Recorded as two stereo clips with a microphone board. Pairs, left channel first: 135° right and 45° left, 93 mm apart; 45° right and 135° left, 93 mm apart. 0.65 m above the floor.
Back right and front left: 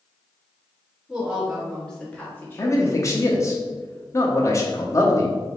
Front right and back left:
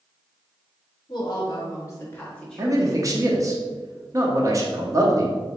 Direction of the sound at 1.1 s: 40° right.